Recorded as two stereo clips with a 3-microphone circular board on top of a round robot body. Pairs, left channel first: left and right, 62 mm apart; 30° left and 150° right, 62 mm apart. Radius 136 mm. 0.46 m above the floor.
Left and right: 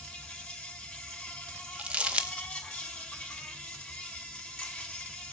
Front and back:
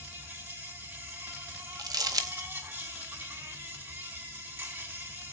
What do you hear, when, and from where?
0.0 s an insect: 165° left, 4 m
1.8 s crumpling: 160° right, 1.6 m